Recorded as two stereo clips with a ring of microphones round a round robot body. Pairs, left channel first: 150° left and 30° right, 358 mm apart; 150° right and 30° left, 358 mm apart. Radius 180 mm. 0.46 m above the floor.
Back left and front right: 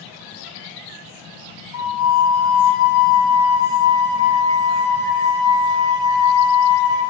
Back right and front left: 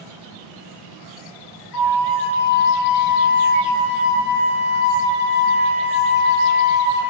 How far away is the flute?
About 0.8 m.